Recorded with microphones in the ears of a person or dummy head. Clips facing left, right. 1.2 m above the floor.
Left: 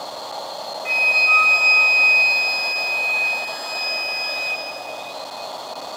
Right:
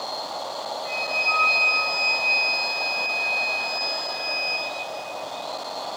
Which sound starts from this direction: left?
A flute, at 0.8 s.